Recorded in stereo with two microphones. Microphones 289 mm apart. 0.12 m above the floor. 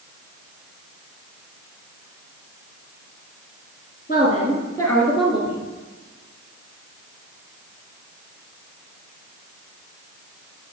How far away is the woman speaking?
About 1.3 m.